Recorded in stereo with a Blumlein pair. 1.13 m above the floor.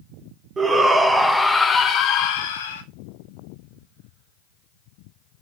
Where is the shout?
15° right, 1.1 m; by 2.8 s 65° left, 0.7 m.